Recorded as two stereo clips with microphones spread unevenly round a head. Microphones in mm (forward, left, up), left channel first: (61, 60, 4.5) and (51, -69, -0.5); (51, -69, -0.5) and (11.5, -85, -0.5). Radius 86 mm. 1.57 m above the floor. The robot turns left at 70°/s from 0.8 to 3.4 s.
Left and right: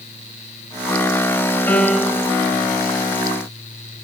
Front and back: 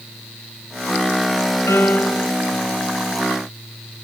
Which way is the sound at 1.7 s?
15° left.